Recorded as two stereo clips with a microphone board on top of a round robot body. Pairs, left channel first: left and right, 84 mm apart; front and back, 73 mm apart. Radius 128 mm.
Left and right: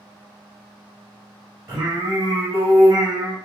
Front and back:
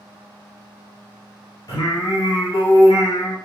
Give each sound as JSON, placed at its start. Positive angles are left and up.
{"t": 1.7, "sound": "singing", "azimuth_deg": -30, "distance_m": 0.6}